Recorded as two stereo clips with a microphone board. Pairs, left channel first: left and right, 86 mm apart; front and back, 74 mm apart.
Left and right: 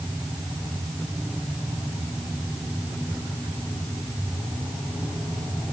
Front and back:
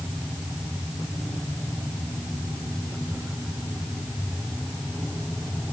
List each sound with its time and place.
Only background noise.